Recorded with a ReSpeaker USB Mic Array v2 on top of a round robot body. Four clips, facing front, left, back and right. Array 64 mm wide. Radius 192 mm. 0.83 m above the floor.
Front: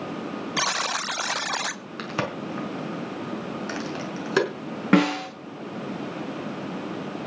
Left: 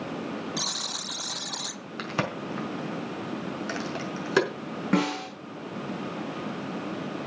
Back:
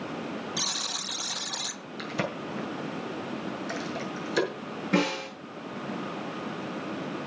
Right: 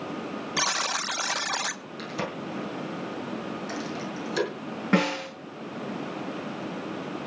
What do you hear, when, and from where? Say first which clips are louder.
0.6 s a buzzer: right 8 dB, front 10 dB; 35° right, 0.8 m
2.0 s a crack: left 3 dB, front 3 dB; 45° left, 5 m
4.9 s a snare drum: right 1 dB, front 7 dB; 10° right, 8 m